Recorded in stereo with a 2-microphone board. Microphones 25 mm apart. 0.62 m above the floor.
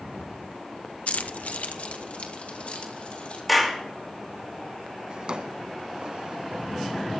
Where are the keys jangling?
60° left (ahead or behind), 0.7 m; by 3.4 s 50° left (ahead or behind), 4 m.